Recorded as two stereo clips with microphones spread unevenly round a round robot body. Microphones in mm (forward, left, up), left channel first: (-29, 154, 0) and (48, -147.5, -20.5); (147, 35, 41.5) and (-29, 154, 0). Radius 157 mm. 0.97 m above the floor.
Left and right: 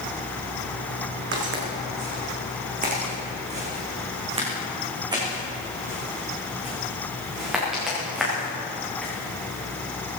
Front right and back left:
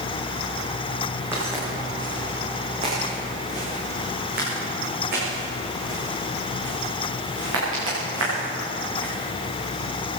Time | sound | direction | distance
1.3 | footsteps | 130° right | 4 m